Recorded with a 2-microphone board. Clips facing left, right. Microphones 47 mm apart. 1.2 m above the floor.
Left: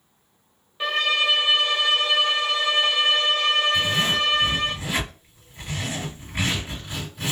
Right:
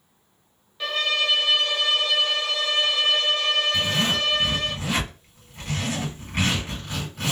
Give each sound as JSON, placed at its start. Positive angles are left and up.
{"t": 0.8, "sound": "a violin", "side_deg": 20, "distance_m": 0.6}
{"t": 3.7, "sound": "a zipper", "side_deg": -55, "distance_m": 1.8}